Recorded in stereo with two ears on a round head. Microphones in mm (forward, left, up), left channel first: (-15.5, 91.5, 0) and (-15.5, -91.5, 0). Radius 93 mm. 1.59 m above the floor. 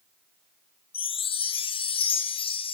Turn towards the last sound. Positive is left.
turn(degrees=25)  # may be behind; listen again after turning